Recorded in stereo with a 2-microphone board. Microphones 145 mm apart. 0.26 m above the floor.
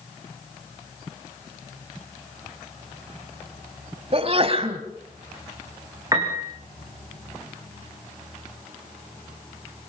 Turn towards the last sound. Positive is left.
turn(degrees=-25)  # may be behind; listen again after turning